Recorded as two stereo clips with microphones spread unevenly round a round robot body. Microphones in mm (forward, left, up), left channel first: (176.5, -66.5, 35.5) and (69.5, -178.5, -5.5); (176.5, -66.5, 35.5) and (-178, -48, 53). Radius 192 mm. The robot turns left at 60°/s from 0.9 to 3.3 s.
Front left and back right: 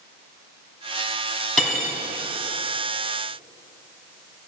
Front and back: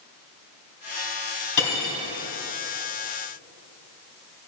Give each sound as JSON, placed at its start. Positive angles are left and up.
{"t": 1.6, "sound": "cutlery clinking", "azimuth_deg": -40, "distance_m": 3.0}